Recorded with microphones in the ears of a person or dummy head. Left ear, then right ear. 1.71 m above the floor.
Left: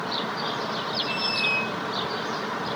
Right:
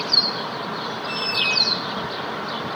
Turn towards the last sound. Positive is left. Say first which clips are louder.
# right 5 dB
turn(degrees=-55)  # may be behind; listen again after turning